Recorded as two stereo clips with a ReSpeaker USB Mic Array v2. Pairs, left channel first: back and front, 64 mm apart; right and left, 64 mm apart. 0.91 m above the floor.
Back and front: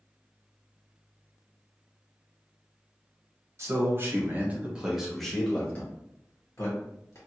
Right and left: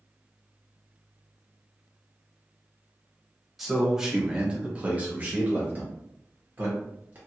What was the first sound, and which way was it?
A man speaking, 5° left.